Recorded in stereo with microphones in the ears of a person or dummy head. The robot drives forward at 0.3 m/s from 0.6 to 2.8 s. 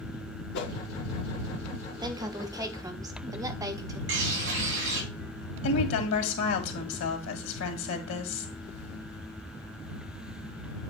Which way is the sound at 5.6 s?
85° left.